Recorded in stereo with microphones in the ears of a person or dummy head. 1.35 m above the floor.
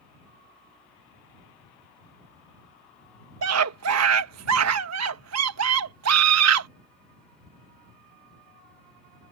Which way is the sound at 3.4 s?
85° right.